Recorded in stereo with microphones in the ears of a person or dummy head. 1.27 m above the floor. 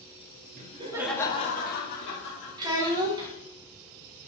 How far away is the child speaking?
About 0.9 m.